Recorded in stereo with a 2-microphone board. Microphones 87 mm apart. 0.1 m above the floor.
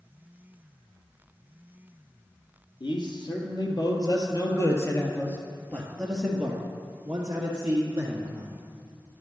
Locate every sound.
2.8 s a man speaking: 60° left (ahead or behind), 2.5 m; by 8.5 s 25° right (ahead or behind), 2.5 m